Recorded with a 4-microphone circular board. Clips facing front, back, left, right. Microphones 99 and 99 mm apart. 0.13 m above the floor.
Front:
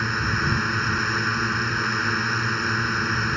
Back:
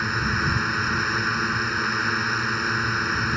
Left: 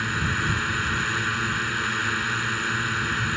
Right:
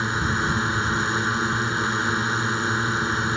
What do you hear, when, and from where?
0.0 s a drone: 95° right